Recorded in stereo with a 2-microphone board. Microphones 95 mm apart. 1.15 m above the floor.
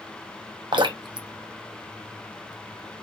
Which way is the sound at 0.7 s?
55° right (ahead or behind).